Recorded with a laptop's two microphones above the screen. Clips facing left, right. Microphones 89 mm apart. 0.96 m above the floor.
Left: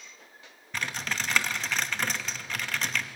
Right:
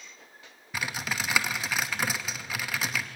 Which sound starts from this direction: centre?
Typing on a keyboard, at 0.7 s.